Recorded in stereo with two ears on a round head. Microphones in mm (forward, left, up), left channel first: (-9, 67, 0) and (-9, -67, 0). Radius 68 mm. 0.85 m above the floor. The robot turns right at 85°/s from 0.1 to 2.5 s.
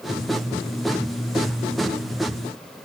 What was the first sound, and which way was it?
Only background noise.